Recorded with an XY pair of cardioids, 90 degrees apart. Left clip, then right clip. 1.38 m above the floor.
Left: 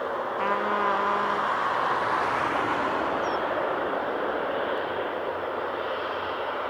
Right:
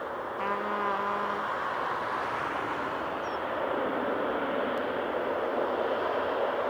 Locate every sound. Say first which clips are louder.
0.4 s a trumpet: left 5 dB; 35° left, 1.0 m